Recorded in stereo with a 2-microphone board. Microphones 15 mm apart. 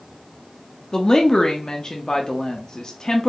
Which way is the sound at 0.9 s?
40° left (ahead or behind).